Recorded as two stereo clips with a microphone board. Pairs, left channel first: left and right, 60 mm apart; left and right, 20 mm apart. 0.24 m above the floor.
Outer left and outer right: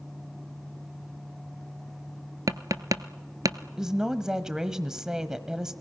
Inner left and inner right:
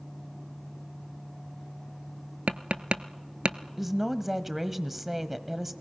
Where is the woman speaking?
10° right (ahead or behind), 1.0 m.